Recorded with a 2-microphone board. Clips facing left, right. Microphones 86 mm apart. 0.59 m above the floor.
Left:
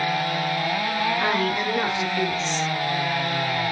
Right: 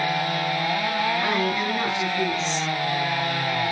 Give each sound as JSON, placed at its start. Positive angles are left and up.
{"t": 1.2, "sound": "a woman speaking", "side_deg": 50, "distance_m": 9.0}